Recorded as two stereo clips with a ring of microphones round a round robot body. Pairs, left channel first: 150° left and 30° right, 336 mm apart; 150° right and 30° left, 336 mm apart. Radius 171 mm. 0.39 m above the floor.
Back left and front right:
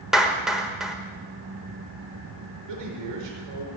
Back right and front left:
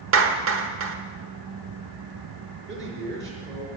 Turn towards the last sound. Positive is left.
turn(degrees=-30)